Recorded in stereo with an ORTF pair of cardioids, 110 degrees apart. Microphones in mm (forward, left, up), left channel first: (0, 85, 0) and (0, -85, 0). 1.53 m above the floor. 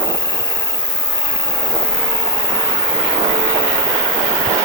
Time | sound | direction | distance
0.0 | an insect | 20° left | ?